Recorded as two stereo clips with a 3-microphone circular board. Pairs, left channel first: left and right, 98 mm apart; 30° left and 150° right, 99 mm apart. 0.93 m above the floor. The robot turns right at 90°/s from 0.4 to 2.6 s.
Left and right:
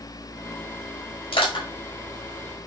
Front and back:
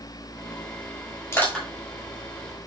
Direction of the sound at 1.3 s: 90° left.